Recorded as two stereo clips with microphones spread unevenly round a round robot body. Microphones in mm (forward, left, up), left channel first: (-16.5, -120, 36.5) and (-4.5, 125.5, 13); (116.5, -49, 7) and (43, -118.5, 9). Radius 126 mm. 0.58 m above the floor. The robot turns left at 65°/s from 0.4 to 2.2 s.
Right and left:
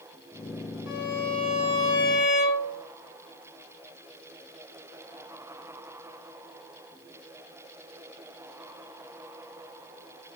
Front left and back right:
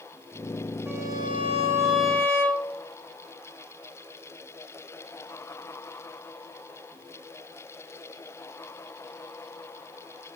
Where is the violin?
70° right, 6.5 m; by 2.8 s 155° right, 6.5 m.